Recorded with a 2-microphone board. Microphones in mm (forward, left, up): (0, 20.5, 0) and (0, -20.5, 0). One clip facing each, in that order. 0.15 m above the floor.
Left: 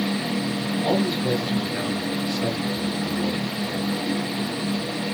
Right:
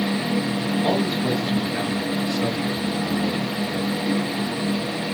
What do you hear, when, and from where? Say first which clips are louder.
0.8 s a man speaking: left 1 dB; 5° right (ahead or behind), 3 m